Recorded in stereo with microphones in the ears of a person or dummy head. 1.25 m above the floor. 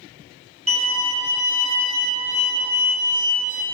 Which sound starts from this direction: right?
A violin, at 0.7 s.